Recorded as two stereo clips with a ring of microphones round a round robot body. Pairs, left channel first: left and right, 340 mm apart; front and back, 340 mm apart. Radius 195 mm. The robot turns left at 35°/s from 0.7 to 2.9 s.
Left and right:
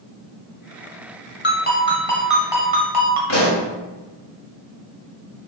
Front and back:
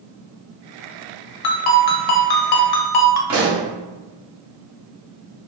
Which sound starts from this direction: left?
A pop, at 3.3 s.